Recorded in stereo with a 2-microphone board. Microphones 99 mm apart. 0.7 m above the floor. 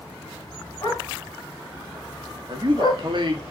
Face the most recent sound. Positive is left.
turn(degrees=-55)  # may be behind; listen again after turning